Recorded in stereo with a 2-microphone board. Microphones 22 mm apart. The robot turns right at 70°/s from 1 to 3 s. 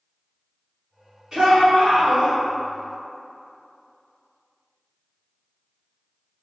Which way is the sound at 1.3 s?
150° right.